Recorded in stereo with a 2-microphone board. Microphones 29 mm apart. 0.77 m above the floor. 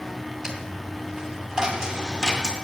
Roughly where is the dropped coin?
Centre.